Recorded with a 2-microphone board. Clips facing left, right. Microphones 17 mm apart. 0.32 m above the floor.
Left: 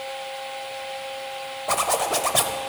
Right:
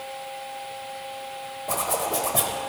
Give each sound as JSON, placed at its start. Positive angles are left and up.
{"t": 1.7, "sound": "a zipper", "side_deg": 35, "distance_m": 0.8}